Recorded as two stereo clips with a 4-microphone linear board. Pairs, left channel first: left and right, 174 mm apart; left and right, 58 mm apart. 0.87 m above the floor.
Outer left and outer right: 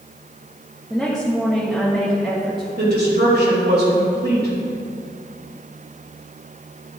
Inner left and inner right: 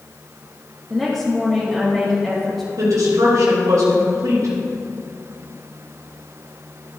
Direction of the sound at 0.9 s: Centre (ahead or behind).